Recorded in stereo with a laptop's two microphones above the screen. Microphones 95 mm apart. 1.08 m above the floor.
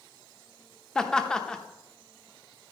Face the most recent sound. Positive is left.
turn(degrees=5)  # may be behind; listen again after turning